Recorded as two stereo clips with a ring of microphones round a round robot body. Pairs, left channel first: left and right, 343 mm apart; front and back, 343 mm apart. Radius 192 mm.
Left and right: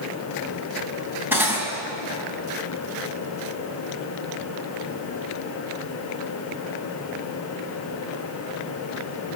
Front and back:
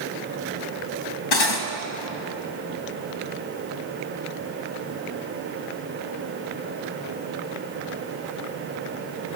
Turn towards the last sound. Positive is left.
turn(degrees=-5)